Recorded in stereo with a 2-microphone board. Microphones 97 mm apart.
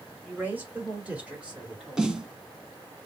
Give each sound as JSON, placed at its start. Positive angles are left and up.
{"t": 0.2, "sound": "a woman speaking", "side_deg": -15, "distance_m": 2.0}
{"t": 2.0, "sound": "a snare drum", "side_deg": -5, "distance_m": 0.7}